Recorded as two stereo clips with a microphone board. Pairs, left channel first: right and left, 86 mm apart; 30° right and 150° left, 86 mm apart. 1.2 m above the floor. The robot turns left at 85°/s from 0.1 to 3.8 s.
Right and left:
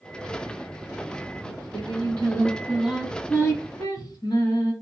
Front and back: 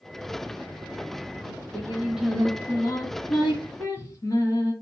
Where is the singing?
130° left, 1.8 m; by 4.7 s 70° right, 1.8 m.